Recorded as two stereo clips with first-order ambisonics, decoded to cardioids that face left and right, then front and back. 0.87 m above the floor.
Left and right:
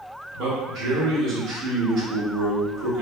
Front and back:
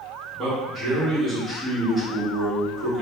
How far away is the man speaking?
About 1.7 m.